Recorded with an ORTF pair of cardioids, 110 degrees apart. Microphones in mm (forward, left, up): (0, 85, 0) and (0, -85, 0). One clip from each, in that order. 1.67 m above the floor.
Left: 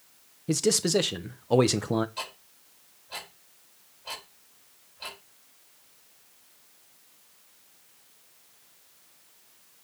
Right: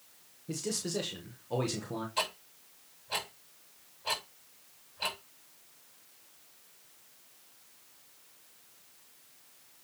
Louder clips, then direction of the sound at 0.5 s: Left 11 dB; 60° left.